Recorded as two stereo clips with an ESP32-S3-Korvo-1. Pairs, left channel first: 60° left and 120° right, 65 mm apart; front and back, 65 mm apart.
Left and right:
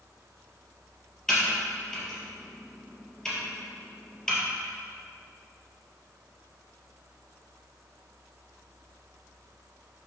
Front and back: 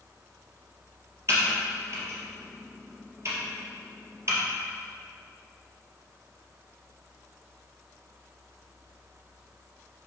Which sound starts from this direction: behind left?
Typing on a keyboard, at 1.3 s.